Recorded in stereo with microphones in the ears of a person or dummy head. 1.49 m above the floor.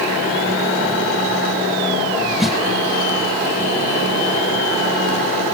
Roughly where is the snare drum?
Centre.